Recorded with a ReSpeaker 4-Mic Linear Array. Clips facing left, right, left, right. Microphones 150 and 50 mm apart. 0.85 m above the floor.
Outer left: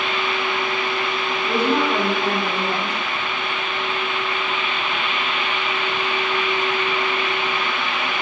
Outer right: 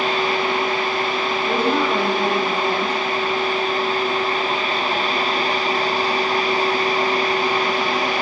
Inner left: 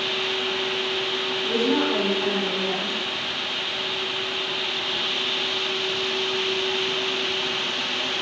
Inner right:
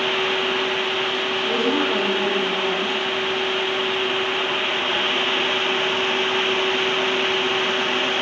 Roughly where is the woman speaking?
Right.